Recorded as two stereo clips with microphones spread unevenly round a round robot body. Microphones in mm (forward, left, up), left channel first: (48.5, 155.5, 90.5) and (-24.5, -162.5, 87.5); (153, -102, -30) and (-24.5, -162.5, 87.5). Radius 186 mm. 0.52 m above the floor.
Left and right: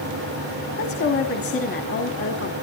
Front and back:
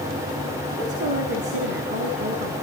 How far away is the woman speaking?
About 1.9 m.